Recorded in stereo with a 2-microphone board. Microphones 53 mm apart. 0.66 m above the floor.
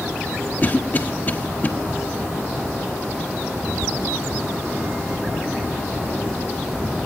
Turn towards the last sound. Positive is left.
turn(degrees=35)  # may be behind; listen again after turning